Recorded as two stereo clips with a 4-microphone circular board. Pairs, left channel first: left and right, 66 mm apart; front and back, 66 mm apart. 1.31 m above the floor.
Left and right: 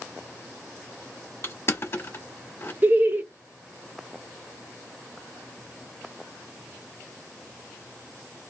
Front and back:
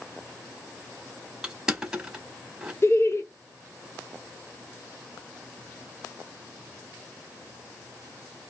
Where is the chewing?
No chewing in this recording.